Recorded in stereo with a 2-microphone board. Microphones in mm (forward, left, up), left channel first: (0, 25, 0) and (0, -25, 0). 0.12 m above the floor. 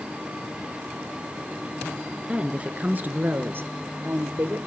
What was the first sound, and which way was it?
A woman speaking, 20° right (ahead or behind).